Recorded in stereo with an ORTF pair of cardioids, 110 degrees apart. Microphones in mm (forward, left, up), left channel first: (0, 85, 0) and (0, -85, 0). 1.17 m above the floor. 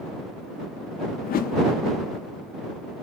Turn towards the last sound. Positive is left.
turn(degrees=60)